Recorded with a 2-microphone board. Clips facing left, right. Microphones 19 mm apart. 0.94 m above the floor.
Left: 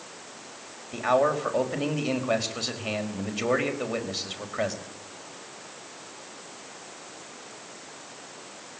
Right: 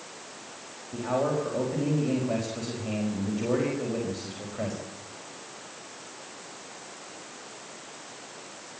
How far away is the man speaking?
About 4.5 m.